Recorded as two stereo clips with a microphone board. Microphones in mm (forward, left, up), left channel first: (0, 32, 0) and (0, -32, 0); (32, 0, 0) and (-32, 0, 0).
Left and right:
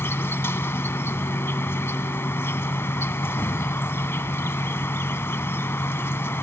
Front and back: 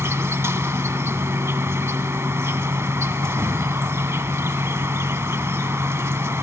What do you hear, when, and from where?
0.0 s an insect: 140° left, 0.9 m